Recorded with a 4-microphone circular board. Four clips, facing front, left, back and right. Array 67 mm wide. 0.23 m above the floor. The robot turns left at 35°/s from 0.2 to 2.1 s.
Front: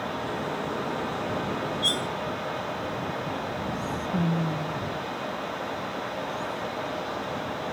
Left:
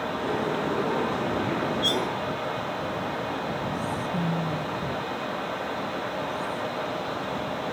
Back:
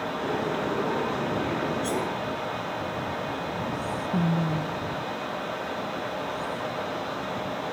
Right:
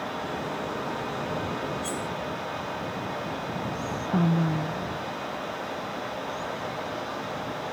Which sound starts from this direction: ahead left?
Cutlery clinking, at 1.8 s.